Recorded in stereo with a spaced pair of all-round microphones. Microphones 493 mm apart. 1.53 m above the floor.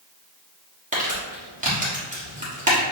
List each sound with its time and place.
0.9 s crumpling: 15° right (ahead or behind), 1.3 m